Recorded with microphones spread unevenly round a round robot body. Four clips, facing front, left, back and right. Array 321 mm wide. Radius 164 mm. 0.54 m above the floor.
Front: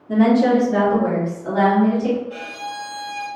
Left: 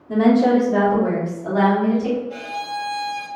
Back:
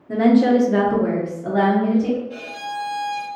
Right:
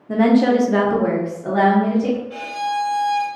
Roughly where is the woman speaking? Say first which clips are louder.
Even, even; ahead right.